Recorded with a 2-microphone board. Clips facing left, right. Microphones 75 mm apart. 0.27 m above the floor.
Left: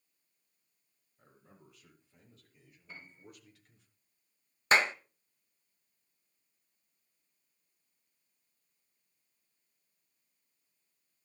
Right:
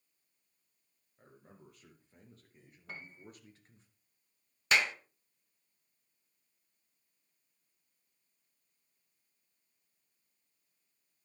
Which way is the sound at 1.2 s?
50° right (ahead or behind).